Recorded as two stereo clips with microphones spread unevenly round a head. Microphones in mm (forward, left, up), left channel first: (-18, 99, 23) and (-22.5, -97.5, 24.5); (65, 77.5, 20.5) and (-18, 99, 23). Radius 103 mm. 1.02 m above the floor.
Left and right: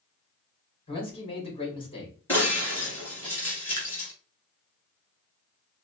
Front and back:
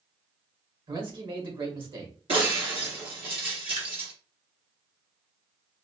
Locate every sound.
0.9 s a man speaking: 150° left, 2.5 m
2.3 s breaking glass: 170° left, 2 m
3.8 s dripping: 165° left, 1.8 m